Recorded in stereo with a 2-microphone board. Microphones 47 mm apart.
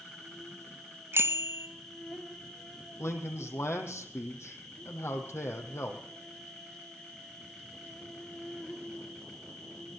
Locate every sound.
0.0 s an insect: 10° left (ahead or behind), 2.5 m
1.1 s a bicycle bell: 65° right (ahead or behind), 2 m
3.0 s a man speaking: 70° left (ahead or behind), 5 m